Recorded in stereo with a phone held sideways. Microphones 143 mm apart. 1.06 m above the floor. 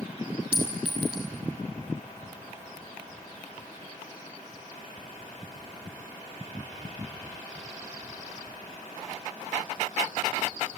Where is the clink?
10° right (ahead or behind), 5.5 m.